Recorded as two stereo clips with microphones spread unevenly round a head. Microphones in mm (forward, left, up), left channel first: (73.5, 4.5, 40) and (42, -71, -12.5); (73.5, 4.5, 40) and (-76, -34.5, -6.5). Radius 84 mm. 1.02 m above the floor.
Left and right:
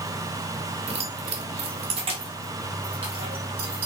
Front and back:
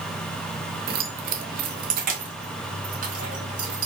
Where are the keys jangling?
130° right, 0.8 m.